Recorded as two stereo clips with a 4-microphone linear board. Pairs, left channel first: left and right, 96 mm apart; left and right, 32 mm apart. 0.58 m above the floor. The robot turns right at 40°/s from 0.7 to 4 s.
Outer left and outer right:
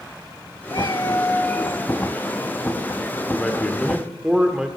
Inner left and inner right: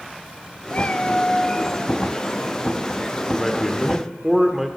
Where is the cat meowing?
125° left, 1.2 m; by 2.0 s 175° left, 1.2 m.